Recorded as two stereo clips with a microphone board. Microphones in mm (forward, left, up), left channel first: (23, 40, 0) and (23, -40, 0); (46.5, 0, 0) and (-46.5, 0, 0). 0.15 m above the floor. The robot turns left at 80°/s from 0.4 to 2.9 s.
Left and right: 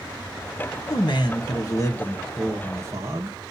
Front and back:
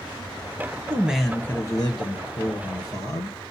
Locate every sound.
0.9 s a man speaking: 115° left, 2.5 m; by 3.4 s 45° right, 2.5 m